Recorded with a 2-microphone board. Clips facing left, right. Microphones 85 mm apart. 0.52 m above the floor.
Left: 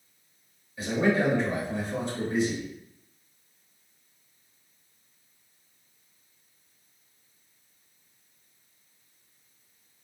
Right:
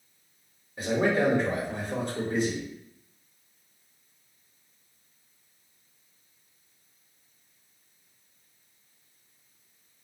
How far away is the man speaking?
About 1.5 m.